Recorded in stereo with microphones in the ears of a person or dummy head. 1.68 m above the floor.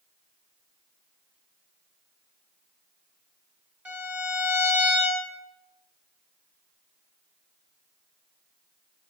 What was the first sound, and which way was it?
A violin, 5° right (ahead or behind).